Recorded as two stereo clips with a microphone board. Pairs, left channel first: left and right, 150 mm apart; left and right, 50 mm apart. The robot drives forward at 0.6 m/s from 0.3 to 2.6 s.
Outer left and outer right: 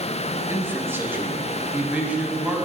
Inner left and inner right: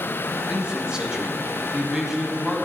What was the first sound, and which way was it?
A man speaking, 15° right (ahead or behind).